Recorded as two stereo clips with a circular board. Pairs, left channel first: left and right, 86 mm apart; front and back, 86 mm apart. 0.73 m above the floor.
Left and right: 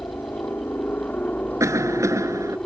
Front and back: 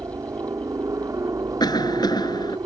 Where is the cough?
35° right.